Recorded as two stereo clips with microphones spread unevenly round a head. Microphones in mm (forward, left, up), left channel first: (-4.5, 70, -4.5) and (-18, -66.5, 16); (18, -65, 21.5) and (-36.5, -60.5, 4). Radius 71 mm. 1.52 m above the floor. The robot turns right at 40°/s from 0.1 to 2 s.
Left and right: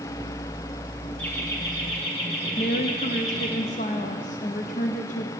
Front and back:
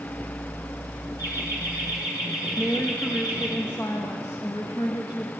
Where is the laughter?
5° left, 2 m; by 3.6 s 35° left, 2 m.